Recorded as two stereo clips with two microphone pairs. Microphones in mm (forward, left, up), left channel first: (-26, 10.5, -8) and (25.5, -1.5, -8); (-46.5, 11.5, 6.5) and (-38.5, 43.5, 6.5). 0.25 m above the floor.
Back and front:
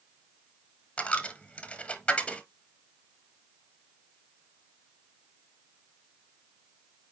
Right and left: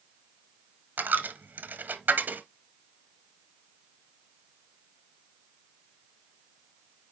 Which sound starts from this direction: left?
A dropped coin, at 1.0 s.